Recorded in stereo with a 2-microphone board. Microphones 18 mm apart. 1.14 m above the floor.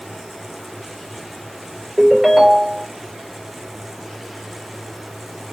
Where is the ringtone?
10° right (ahead or behind), 1.6 m.